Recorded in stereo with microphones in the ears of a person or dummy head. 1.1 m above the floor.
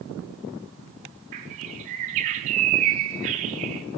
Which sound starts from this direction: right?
A bird, at 1.3 s.